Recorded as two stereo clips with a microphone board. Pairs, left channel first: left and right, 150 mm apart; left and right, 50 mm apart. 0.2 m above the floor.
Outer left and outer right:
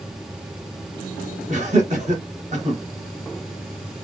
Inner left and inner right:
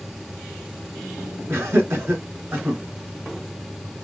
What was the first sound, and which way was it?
Laughter, 50° right (ahead or behind).